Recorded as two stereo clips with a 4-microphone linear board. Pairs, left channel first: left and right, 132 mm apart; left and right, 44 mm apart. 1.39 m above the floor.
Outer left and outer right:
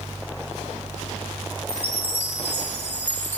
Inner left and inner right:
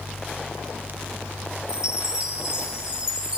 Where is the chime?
10° right (ahead or behind), 1.2 m.